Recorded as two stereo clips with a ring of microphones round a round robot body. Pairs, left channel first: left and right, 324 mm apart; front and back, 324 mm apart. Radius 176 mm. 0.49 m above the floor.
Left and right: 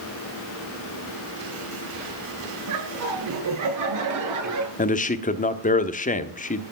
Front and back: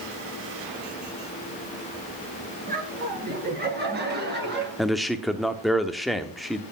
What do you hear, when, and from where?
2.7 s laughter: 115° right, 9 m; by 4.7 s 120° right, 10.5 m
4.8 s a man speaking: 90° left, 1.1 m